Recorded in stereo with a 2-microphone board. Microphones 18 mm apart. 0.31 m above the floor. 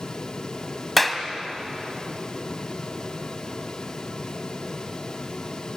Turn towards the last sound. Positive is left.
turn(degrees=0)  # may be behind; listen again after turning